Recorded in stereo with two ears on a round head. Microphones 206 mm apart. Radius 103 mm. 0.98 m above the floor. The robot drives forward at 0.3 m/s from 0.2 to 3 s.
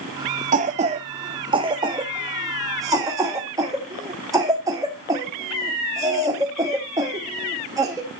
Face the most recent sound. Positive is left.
turn(degrees=-15)  # may be behind; listen again after turning